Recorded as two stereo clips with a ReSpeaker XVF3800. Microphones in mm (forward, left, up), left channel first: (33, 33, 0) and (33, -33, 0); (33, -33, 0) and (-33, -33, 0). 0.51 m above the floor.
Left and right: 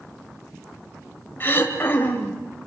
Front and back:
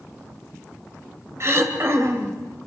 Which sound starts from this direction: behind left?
Throat clearing, at 1.4 s.